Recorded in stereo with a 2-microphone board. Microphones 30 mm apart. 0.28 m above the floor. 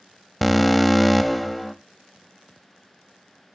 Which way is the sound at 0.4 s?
Centre (ahead or behind).